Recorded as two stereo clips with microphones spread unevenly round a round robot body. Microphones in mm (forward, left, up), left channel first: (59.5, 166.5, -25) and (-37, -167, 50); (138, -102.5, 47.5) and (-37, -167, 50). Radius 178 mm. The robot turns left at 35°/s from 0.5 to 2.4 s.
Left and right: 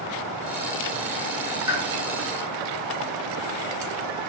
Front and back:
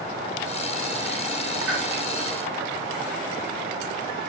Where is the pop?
175° left, 3 m; by 1.8 s 170° left, 3 m.